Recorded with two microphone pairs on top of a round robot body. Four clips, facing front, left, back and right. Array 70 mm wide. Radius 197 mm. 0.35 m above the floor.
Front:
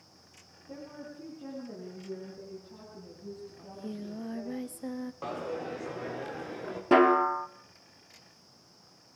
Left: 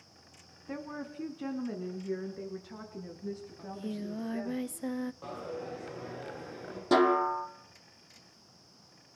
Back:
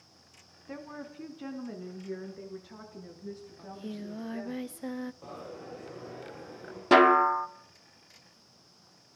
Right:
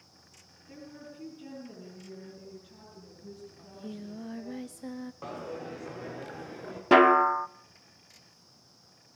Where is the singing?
135° left, 1.1 m.